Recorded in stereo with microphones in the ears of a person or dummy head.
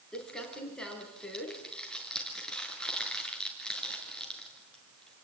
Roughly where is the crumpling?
Centre.